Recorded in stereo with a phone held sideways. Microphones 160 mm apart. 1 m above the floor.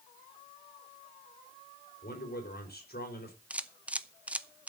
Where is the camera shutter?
10° right (ahead or behind), 0.7 m.